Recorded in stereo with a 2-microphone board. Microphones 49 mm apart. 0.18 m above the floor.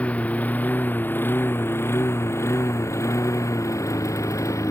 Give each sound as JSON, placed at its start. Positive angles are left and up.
{"t": 0.0, "sound": "a lawn mower", "side_deg": 25}